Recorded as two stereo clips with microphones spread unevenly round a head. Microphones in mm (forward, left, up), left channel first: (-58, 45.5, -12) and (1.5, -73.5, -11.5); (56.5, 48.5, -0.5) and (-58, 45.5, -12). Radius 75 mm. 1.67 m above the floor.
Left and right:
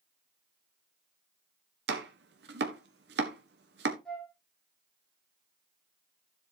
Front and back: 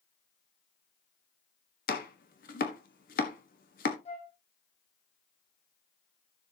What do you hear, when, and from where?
1.9 s chopping: 35° right, 1.4 m
4.0 s a flute: 30° left, 7 m